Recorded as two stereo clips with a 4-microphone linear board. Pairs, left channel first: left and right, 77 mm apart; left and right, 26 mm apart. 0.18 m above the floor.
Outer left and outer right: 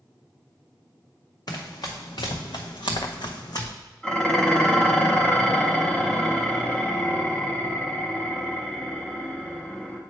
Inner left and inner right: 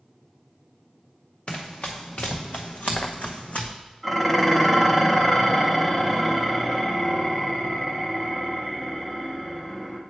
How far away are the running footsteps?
About 1.4 m.